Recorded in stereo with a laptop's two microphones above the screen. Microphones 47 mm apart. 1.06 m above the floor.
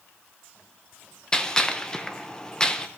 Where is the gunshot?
15° left (ahead or behind), 0.7 m.